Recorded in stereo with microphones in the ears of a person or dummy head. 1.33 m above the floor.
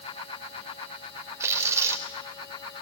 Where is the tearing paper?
20° right (ahead or behind), 3.5 m.